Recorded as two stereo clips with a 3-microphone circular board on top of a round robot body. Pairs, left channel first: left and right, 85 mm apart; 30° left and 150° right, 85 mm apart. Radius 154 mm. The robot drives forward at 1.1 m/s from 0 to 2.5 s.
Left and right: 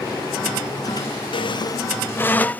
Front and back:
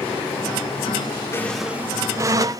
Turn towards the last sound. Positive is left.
turn(degrees=160)